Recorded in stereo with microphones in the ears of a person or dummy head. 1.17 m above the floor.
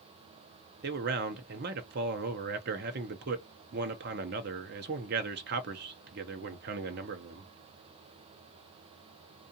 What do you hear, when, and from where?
0.8 s a man speaking: 55° right (ahead or behind), 0.7 m